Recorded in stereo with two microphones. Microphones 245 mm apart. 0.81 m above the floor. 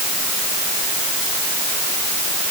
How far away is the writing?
No writing in this recording.